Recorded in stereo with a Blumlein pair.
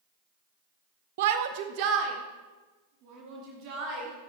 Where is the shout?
55° right, 0.8 m; by 4.3 s 35° right, 3.5 m.